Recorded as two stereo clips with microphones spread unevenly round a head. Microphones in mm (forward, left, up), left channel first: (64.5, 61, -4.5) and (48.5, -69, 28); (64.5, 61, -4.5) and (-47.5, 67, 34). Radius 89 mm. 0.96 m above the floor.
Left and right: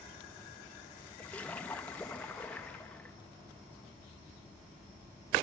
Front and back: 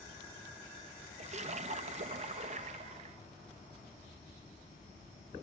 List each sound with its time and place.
1.2 s a splash: 150° left, 1.4 m